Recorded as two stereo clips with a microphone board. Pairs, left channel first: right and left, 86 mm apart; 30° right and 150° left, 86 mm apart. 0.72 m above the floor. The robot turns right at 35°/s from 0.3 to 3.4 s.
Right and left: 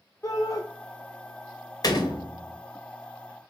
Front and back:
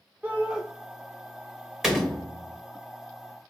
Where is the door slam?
125° right, 1.0 m; by 2.6 s 100° right, 1.0 m.